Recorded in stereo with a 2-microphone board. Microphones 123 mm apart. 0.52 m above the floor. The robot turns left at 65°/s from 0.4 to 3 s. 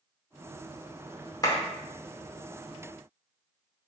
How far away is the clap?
About 0.8 m.